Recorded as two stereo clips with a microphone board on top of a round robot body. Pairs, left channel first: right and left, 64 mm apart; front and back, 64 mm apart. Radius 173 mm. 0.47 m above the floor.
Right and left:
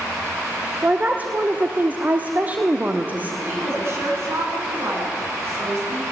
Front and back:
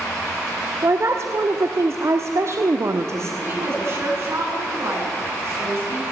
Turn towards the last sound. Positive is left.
turn(degrees=135)